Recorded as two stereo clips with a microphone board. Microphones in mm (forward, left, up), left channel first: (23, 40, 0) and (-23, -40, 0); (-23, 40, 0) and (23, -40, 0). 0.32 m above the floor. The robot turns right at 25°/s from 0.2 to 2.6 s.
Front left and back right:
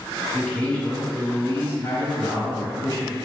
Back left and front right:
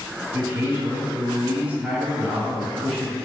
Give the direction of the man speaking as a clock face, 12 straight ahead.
1 o'clock.